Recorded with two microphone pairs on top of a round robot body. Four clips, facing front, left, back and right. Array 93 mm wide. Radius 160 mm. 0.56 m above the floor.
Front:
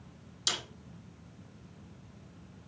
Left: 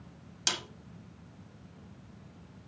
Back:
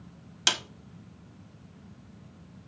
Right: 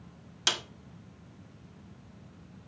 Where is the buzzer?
No buzzer in this recording.